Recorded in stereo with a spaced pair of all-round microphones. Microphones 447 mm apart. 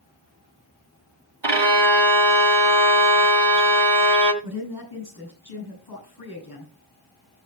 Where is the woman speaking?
55° left (ahead or behind), 9 m.